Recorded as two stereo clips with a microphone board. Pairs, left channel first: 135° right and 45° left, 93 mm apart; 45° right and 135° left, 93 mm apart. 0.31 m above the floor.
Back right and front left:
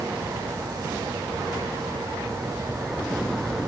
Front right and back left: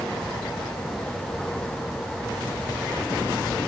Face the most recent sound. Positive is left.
No sound to turn to.